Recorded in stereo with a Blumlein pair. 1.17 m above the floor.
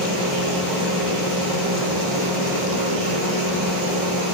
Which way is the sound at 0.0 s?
Straight ahead.